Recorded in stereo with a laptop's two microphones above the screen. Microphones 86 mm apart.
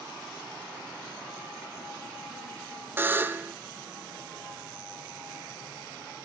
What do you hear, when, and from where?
3.0 s a buzzer: 25° right (ahead or behind), 0.7 m